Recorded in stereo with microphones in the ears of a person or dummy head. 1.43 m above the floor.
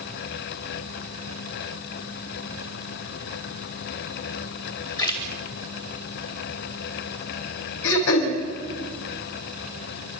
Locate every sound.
5.0 s a splash: 20° left (ahead or behind), 2.5 m
7.8 s throat clearing: 70° left (ahead or behind), 5 m